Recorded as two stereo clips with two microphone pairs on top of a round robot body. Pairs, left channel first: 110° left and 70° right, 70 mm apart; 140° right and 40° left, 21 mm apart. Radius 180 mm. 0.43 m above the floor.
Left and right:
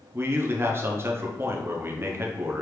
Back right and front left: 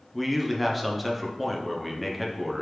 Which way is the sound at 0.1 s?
50° right.